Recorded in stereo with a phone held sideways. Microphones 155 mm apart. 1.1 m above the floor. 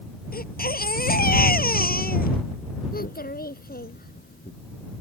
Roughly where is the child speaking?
Left.